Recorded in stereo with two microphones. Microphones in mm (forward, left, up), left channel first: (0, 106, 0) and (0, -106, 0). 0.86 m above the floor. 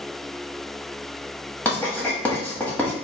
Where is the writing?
5° left (ahead or behind), 1.2 m.